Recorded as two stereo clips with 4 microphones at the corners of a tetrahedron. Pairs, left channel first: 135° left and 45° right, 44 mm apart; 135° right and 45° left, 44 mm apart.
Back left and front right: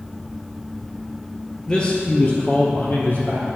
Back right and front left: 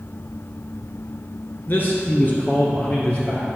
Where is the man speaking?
155° right, 1.7 m; by 3.5 s 165° left, 2.5 m.